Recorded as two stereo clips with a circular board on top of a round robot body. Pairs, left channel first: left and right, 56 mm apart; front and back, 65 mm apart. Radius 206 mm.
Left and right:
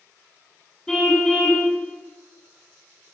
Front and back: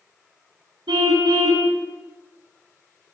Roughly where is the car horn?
Behind.